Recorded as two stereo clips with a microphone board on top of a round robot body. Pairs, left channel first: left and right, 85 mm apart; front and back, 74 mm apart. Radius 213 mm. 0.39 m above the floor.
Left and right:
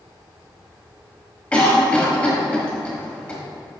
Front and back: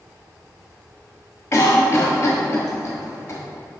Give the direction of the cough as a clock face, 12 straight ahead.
11 o'clock.